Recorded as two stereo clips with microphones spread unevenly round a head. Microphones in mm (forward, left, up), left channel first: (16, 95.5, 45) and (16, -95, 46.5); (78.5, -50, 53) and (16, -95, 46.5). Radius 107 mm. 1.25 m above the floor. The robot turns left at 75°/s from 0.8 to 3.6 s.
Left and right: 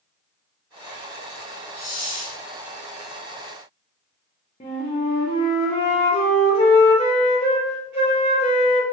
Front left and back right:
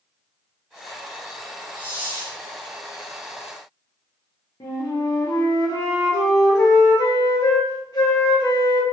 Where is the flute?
40° left, 0.6 m.